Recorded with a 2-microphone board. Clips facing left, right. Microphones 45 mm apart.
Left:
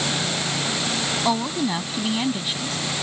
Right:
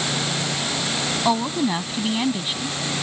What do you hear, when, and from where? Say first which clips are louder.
1.2 s a woman speaking: right 3 dB; 5° right (ahead or behind)